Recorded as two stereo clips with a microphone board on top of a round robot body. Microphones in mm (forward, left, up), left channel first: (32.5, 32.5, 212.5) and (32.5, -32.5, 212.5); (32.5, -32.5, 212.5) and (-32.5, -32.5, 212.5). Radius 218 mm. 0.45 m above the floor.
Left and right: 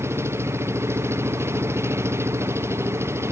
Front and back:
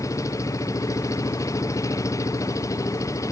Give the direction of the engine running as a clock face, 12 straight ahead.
1 o'clock.